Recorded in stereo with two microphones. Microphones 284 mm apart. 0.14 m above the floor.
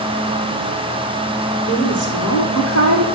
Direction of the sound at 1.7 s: 70° left (ahead or behind).